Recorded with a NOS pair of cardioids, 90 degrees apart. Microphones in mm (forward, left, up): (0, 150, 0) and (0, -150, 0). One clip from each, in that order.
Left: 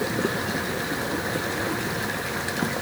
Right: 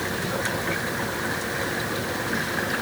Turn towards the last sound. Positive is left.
No sound to turn to.